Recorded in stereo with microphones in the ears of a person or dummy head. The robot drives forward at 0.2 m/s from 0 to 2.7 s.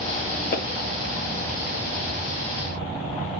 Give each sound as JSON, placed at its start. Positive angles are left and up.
{"t": 0.5, "sound": "a pop", "side_deg": 45, "distance_m": 1.1}